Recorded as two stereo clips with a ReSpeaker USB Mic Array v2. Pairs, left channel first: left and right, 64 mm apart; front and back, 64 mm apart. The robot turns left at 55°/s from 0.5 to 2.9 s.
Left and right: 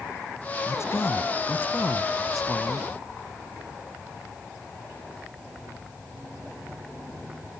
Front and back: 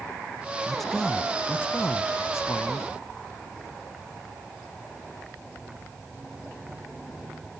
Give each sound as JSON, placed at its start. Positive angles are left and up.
{"t": 0.7, "sound": "a man speaking", "azimuth_deg": 95, "distance_m": 1.3}